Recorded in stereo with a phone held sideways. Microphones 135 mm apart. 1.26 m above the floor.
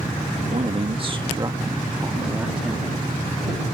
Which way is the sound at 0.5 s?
55° right (ahead or behind).